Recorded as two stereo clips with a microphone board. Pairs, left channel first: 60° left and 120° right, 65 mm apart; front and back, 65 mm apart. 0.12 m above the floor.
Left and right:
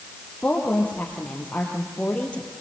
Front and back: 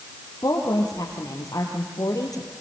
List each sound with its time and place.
0.4 s a woman speaking: 10° right, 4 m